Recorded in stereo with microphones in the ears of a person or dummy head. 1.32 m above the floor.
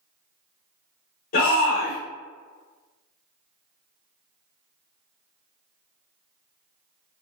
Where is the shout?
45° left (ahead or behind), 1.2 m.